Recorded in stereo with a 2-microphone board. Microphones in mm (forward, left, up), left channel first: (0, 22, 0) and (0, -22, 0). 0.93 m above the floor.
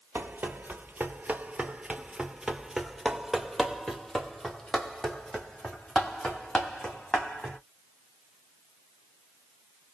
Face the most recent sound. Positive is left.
turn(degrees=20)  # may be behind; listen again after turning